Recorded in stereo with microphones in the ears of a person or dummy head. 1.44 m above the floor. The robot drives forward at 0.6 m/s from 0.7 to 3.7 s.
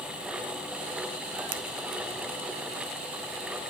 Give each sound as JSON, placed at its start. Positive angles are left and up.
{"t": 1.5, "sound": "a finger snap", "side_deg": -50, "distance_m": 0.5}